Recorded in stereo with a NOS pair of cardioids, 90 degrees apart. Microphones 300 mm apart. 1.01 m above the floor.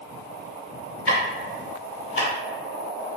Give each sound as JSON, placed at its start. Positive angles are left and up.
{"t": 1.1, "sound": "ticking", "azimuth_deg": 45, "distance_m": 1.6}